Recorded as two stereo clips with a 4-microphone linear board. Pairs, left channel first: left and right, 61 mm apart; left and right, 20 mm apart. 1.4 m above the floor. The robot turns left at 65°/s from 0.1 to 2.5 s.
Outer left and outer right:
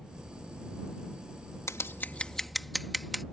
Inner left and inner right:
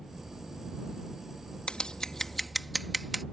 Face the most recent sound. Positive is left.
turn(degrees=0)  # may be behind; listen again after turning